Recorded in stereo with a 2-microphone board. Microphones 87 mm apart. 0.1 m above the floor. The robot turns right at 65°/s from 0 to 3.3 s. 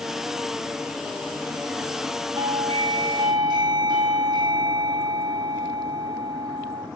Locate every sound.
2.4 s a doorbell: 130° right, 5.5 m; by 6.9 s 65° right, 5.5 m